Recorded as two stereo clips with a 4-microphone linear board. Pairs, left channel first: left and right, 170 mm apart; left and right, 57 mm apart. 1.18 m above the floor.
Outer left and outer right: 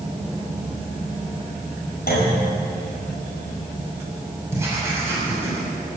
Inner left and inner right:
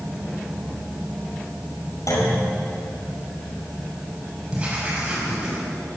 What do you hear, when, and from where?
2.1 s a clunk: 65° left (ahead or behind), 5 m
4.5 s writing: 15° right (ahead or behind), 6 m